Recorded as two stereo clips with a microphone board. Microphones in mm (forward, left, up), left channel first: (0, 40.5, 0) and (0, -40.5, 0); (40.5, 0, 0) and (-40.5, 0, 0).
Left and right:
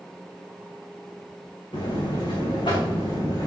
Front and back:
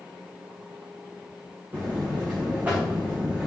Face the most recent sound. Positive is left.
turn(degrees=110)